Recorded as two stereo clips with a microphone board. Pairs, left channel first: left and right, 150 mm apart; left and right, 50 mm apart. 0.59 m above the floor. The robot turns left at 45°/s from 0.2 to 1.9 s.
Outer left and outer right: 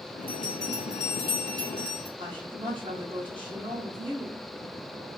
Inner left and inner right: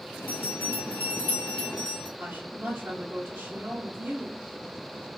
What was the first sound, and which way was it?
A bell, 85° left.